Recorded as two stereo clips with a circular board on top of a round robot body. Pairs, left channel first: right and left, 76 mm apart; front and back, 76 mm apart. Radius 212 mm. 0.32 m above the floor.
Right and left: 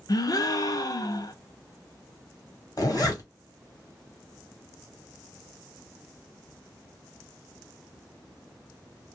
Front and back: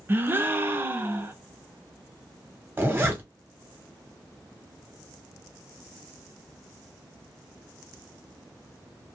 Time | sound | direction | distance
0.1 | a gasp | 120° right | 0.7 m
2.8 | a zipper | 120° right | 1.4 m